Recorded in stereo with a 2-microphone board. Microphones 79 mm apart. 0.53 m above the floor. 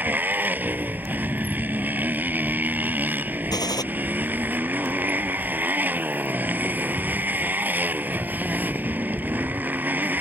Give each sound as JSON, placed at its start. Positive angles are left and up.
{"t": 0.0, "sound": "a motorcycle", "side_deg": -25}
{"t": 3.5, "sound": "a gunshot", "side_deg": 55}